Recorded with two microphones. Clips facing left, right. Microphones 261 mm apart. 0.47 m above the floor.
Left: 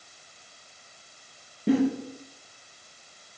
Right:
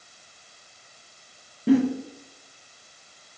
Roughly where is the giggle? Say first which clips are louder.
Right 4 dB; centre.